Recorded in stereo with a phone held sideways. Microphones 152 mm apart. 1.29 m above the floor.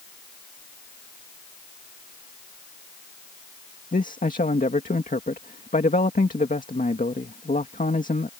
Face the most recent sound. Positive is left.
turn(degrees=60)  # may be behind; listen again after turning